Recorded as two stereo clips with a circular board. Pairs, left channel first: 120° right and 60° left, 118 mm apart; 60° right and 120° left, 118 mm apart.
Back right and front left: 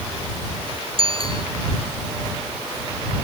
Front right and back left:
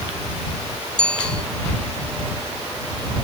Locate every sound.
1.0 s a bicycle bell: 25° left